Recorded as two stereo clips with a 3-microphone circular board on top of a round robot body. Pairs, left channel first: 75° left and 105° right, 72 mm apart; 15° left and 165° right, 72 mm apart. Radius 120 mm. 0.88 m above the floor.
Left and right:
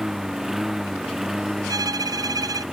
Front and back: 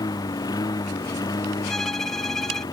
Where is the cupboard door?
No cupboard door in this recording.